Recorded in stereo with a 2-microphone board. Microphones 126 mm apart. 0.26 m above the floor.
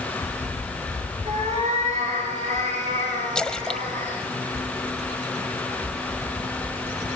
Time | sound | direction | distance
1.2 | a cat meowing | 65° right (ahead or behind) | 8 m
3.4 | a splash | 5° left (ahead or behind) | 0.9 m